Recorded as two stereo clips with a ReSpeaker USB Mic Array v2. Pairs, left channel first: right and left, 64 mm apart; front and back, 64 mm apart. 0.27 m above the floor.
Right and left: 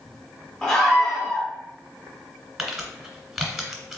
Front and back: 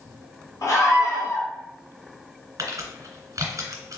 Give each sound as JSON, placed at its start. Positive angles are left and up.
{"t": 0.6, "sound": "a scream", "azimuth_deg": -15, "distance_m": 2.0}
{"t": 2.6, "sound": "crumpling", "azimuth_deg": 170, "distance_m": 1.6}